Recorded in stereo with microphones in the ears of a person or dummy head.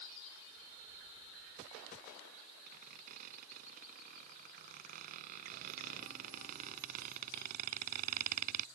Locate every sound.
2.7 s a squeak: 45° right (ahead or behind)